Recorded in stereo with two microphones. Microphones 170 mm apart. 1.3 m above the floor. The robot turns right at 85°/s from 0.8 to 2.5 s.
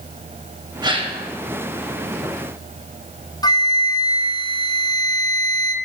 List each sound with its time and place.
0.8 s a gasp: 140° right, 0.8 m; by 1.2 s 105° right, 0.8 m
3.4 s a flute: 25° left (ahead or behind), 0.5 m